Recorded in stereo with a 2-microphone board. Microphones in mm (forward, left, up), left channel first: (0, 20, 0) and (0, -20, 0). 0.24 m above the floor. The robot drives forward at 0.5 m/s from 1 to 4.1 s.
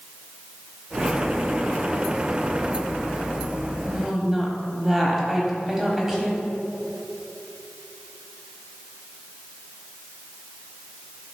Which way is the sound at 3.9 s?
15° right (ahead or behind).